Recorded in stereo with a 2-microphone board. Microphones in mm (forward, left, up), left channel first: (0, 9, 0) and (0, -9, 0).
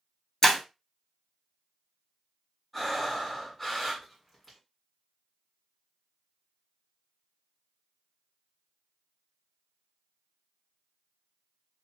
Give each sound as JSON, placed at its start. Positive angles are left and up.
{"t": 0.4, "sound": "breaking glass", "side_deg": 35, "distance_m": 1.4}
{"t": 2.7, "sound": "breathing", "side_deg": 5, "distance_m": 2.5}